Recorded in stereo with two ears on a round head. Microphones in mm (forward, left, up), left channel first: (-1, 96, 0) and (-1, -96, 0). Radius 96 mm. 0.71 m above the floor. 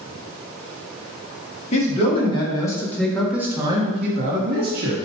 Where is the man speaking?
30° left (ahead or behind), 1.9 m; by 5.0 s 50° right (ahead or behind), 1.6 m.